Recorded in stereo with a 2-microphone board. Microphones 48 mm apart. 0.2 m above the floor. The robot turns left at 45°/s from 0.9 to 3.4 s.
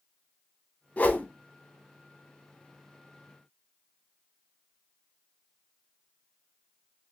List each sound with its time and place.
1.0 s a whoosh: 35° left (ahead or behind), 0.6 m